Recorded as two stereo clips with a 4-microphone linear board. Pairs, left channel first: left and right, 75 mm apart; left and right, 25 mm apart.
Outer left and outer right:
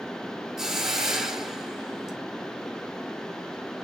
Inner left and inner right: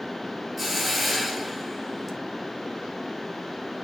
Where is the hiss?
5° right (ahead or behind), 1.1 m.